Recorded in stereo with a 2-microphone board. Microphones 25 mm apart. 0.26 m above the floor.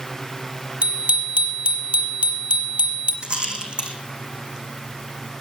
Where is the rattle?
50° right (ahead or behind), 2.5 m.